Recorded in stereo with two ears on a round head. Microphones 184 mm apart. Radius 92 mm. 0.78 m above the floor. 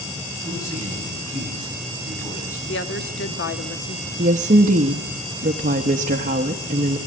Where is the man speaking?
15° left (ahead or behind), 8 m.